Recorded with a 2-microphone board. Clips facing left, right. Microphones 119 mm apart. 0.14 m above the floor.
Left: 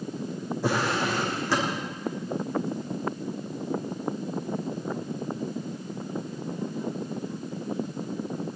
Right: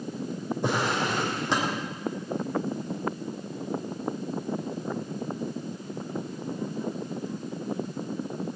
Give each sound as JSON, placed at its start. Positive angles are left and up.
{"t": 0.6, "sound": "a drawer", "side_deg": -20, "distance_m": 4.5}